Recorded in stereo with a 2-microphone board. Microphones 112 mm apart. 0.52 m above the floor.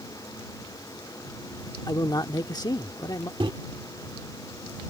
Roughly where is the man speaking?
Left.